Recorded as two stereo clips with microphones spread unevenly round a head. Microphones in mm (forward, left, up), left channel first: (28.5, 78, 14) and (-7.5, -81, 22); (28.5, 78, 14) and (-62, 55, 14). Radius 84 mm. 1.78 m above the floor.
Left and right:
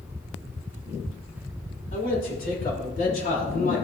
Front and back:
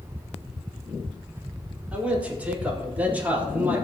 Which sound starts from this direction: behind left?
A man speaking, at 1.9 s.